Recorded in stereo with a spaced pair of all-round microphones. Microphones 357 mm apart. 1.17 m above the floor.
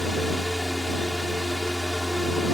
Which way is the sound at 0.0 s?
Centre (ahead or behind).